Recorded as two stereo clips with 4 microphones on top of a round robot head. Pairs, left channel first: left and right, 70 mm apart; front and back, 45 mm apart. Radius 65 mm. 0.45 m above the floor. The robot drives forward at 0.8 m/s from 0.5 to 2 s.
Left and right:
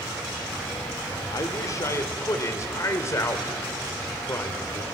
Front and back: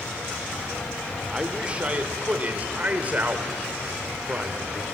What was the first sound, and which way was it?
A man speaking, 105° left.